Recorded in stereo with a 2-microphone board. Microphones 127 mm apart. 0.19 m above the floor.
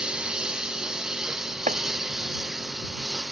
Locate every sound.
0.0 s a lawn mower: 5° right (ahead or behind); by 3.3 s centre (ahead or behind)
1.7 s chopping: 90° right